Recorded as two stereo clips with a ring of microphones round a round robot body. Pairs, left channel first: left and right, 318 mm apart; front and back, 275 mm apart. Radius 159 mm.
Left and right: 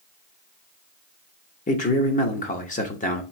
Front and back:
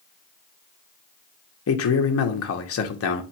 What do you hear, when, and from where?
1.7 s a man speaking: 25° left, 0.8 m